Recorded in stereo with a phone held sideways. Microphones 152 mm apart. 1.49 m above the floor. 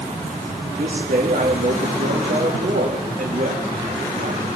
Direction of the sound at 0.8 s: 85° right.